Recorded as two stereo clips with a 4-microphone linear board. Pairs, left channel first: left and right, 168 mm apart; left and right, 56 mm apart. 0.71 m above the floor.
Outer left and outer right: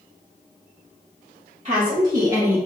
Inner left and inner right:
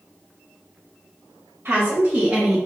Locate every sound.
1.6 s a woman speaking: 40° right (ahead or behind), 1.2 m; by 2.7 s 10° right (ahead or behind), 1.1 m